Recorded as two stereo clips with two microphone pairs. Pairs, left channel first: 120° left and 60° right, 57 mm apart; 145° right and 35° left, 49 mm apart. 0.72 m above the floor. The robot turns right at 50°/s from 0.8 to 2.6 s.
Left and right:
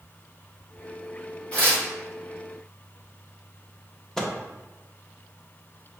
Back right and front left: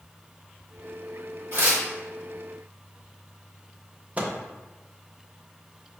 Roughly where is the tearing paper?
Ahead left.